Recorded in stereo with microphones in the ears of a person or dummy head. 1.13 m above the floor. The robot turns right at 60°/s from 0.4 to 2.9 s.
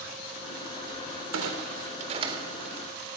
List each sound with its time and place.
1.3 s a clunk: 85° right, 3.5 m; by 2.8 s centre (ahead or behind), 3.5 m